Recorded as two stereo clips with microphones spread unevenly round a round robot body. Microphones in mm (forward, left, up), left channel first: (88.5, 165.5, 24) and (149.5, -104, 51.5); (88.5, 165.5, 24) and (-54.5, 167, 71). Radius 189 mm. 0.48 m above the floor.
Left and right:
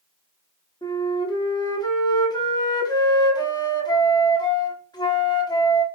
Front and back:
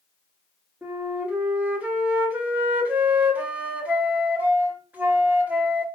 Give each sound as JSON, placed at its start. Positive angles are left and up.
{"t": 0.8, "sound": "a flute", "azimuth_deg": 70, "distance_m": 1.3}